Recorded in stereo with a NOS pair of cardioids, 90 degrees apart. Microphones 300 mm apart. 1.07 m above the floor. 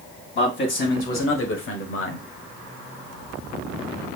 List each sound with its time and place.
0.3 s a man speaking: 40° left, 2.5 m; by 2.2 s 70° left, 1.1 m